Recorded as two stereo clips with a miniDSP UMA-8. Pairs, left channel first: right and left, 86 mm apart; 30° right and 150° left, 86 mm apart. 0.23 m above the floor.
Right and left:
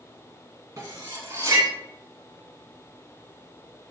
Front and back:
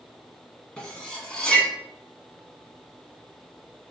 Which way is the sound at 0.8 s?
50° left.